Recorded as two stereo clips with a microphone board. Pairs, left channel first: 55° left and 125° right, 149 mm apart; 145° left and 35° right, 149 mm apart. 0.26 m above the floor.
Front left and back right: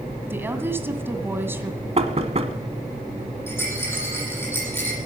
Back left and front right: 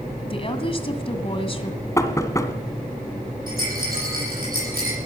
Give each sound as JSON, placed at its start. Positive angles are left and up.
{"t": 0.3, "sound": "a woman speaking", "azimuth_deg": 165, "distance_m": 1.9}
{"t": 2.0, "sound": "knocking", "azimuth_deg": -150, "distance_m": 1.4}
{"t": 3.5, "sound": "a rattle", "azimuth_deg": -20, "distance_m": 9.5}